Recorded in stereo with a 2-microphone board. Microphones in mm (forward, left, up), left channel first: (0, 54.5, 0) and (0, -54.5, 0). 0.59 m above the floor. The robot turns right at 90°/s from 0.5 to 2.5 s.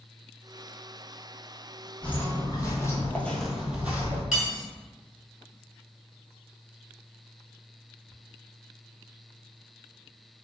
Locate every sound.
2.0 s footsteps: 10° left (ahead or behind), 0.9 m; by 4.2 s 20° right (ahead or behind), 0.9 m
4.3 s cutlery clinking: 5° right (ahead or behind), 1.3 m